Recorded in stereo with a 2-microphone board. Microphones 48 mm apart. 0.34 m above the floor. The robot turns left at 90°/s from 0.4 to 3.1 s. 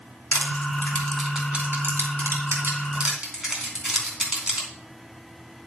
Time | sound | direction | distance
0.3 | crushing | 65° left (ahead or behind) | 3 m